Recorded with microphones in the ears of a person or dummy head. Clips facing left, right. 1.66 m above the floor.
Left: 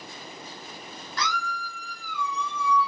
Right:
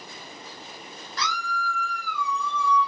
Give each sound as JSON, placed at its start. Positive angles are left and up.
{"t": 1.2, "sound": "a scream", "side_deg": 50, "distance_m": 1.1}